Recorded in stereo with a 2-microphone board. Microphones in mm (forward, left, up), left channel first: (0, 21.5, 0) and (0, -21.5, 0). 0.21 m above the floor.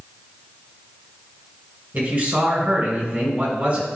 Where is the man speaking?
50° right (ahead or behind), 2.5 m.